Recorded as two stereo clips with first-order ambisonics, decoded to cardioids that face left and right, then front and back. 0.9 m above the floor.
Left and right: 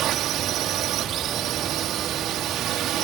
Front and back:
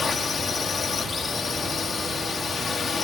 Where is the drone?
60° right.